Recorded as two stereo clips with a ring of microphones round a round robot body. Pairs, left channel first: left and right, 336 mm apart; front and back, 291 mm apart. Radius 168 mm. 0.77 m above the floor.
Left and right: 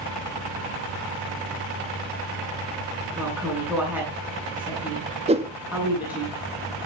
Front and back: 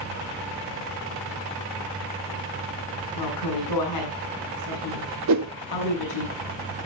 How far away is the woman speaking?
About 9.5 m.